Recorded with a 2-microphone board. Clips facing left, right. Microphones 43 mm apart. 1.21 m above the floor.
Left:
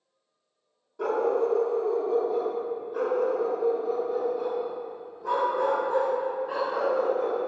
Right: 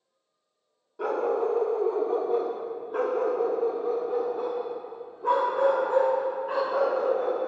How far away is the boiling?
No boiling in this recording.